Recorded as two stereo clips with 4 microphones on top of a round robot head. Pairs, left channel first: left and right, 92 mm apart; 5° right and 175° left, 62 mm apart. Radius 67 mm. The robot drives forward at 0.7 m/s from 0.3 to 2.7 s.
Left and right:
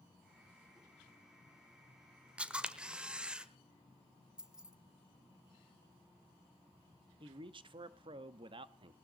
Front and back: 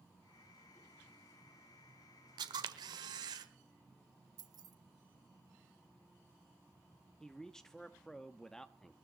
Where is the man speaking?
85° right, 1.1 m.